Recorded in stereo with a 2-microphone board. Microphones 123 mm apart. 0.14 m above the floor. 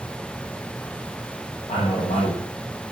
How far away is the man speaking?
About 9.5 m.